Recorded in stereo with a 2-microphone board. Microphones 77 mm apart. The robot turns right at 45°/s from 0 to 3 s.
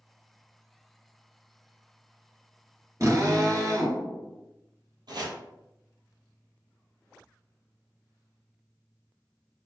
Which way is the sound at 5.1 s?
70° right (ahead or behind).